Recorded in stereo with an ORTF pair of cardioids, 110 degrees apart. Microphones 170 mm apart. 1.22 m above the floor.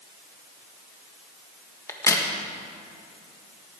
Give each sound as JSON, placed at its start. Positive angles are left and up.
{"t": 1.9, "sound": "a crack", "azimuth_deg": 15, "distance_m": 1.5}